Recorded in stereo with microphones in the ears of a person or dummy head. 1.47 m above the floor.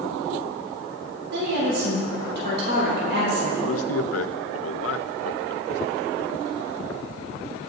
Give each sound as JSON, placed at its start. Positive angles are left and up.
{"t": 1.3, "sound": "a woman speaking", "side_deg": -70, "distance_m": 3.5}
{"t": 3.6, "sound": "a man speaking", "side_deg": 75, "distance_m": 0.7}